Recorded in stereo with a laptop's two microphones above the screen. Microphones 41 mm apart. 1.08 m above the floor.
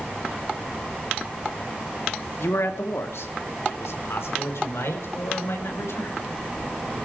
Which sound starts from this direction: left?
A man speaking, at 2.4 s.